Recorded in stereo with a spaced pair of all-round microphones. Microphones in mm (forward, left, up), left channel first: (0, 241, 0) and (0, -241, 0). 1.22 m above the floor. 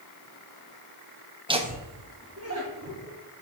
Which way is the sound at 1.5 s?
10° right (ahead or behind).